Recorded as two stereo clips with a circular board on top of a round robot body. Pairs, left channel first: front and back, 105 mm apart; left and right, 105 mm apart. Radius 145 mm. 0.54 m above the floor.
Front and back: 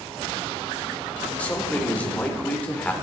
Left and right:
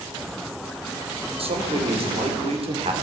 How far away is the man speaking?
About 3 m.